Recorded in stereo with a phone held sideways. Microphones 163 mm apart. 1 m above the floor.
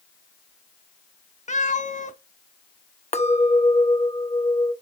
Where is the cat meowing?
50° left (ahead or behind), 0.8 m.